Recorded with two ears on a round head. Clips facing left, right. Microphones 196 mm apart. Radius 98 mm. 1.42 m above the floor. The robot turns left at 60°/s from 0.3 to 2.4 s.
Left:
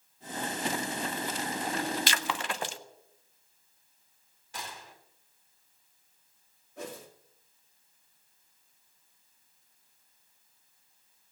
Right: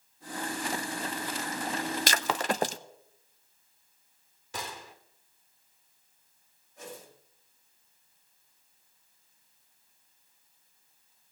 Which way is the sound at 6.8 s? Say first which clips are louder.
Left 4 dB; 55° left (ahead or behind).